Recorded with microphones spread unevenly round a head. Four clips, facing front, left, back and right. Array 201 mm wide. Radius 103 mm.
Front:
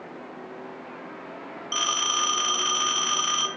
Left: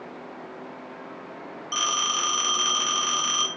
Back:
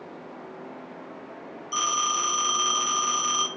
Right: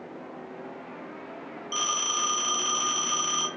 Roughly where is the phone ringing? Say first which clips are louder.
Left 3 dB, back 2 dB; ahead left.